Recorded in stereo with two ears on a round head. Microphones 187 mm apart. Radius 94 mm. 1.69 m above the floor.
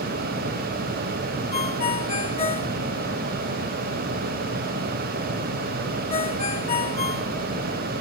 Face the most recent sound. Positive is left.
turn(degrees=30)  # may be behind; listen again after turning